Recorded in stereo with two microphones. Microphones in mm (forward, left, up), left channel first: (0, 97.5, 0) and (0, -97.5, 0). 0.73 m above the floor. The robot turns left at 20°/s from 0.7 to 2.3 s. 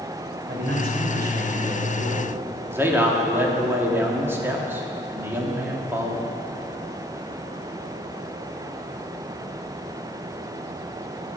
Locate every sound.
0.5 s a man speaking: 110° right, 2.5 m; by 2.3 s 145° right, 2.5 m
2.7 s a man speaking: 10° right (ahead or behind), 1.5 m